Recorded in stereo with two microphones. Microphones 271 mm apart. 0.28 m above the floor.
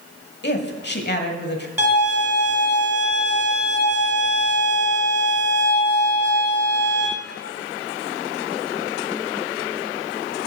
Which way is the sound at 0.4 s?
40° left (ahead or behind).